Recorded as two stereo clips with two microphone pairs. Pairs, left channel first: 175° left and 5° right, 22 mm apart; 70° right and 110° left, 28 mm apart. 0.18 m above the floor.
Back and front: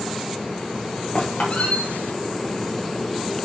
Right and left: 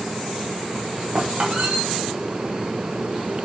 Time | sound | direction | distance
1.1 | a squeak | 160° left | 4 m